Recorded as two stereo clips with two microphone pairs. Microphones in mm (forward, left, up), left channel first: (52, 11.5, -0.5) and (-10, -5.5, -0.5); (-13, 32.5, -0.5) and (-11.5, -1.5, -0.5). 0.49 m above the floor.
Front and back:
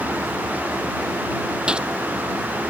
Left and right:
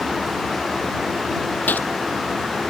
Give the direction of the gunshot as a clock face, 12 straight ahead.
8 o'clock.